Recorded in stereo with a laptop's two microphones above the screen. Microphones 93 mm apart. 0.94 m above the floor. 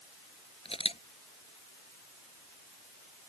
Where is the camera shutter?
85° left.